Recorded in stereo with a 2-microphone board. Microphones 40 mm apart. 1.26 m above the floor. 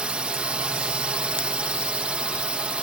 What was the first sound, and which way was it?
A drone, 25° right (ahead or behind).